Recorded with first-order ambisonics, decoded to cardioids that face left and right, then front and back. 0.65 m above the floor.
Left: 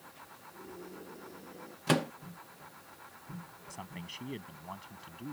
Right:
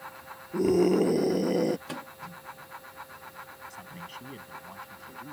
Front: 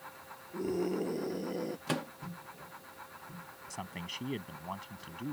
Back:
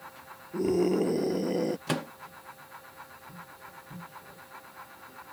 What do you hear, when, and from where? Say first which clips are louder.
0.5 s a scream: right 26 dB, back 8 dB; 115° right
1.9 s a microwave: left 9 dB, back 3 dB; 110° left
3.7 s a man speaking: right 3 dB, front 4 dB; 15° left